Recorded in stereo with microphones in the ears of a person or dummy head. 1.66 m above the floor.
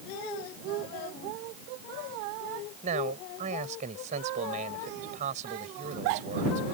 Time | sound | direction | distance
2.8 | a man speaking | 40° right (ahead or behind) | ?